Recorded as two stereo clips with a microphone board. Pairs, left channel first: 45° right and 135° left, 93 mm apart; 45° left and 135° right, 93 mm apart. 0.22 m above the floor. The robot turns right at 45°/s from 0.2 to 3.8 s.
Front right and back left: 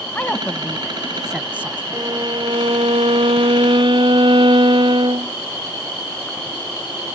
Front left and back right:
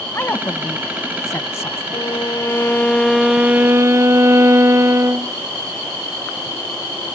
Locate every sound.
0.1 s a woman speaking: 10° left; by 1.8 s 80° left
1.9 s a violin: 80° left; by 5.3 s 165° left